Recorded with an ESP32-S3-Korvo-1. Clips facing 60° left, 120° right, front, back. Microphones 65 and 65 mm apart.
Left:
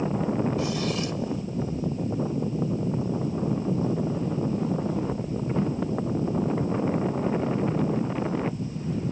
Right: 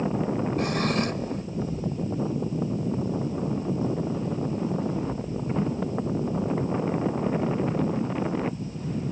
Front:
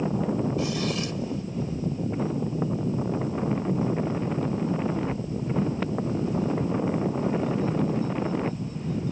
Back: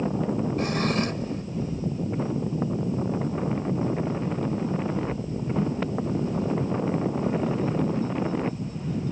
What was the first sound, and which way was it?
A drawer, 145° right.